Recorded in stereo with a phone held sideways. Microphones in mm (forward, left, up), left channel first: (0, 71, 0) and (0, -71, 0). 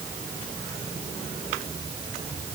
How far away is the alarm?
No alarm in this recording.